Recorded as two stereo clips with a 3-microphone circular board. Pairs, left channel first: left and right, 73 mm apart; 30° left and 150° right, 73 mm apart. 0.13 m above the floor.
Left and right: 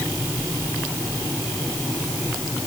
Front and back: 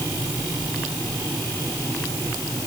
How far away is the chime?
No chime in this recording.